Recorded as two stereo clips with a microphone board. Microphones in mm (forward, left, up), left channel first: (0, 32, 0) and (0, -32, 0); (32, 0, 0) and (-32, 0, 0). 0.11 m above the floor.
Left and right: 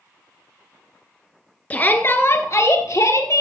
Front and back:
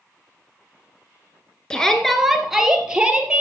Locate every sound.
1.7 s a shout: 60° left, 1.4 m; by 3.4 s 110° left, 2.5 m